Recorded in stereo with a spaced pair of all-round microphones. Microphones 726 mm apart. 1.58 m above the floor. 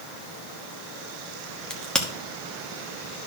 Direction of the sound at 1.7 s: Centre (ahead or behind).